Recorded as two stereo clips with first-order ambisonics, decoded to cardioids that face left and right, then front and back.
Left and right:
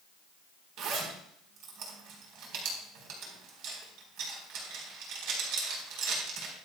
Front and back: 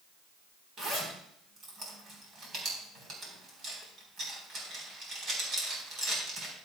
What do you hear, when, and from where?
0.8 s a zipper: 120° right, 4 m